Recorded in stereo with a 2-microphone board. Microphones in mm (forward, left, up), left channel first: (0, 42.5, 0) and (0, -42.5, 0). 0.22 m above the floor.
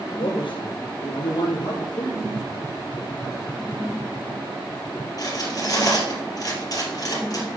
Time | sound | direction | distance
0.2 | a man speaking | 80° left | 4.5 m
2.2 | tapping | 40° left (ahead or behind) | 2 m
5.2 | cutlery clinking | 45° left (ahead or behind) | 3.5 m